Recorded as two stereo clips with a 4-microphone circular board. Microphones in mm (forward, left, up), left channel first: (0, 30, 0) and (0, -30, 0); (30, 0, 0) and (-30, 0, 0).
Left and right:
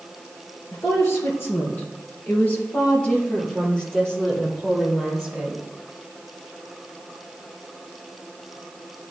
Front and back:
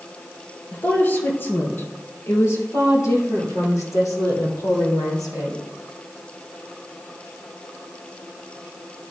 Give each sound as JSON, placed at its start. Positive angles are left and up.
{"t": 0.7, "sound": "a woman speaking", "azimuth_deg": 60, "distance_m": 2.5}